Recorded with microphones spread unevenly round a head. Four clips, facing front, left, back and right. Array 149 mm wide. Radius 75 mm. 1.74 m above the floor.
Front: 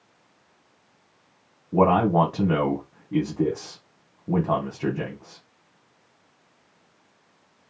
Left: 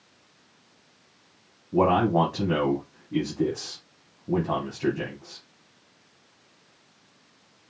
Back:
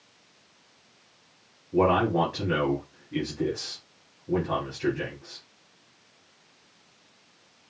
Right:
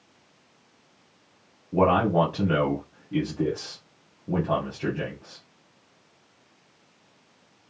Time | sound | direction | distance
1.7 | a man speaking | 15° right | 1.5 m